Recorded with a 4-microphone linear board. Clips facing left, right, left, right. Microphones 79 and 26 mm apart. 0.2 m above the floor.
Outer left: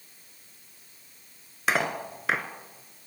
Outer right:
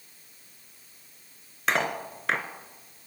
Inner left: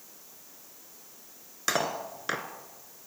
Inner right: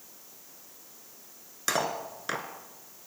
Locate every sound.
1.7 s cutlery clinking: 5° left (ahead or behind), 1.5 m